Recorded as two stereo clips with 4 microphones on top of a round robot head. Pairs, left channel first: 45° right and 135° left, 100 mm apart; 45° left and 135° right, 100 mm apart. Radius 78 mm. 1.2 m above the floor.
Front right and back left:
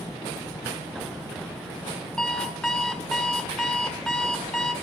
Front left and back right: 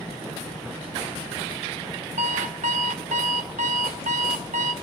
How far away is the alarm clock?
About 0.9 m.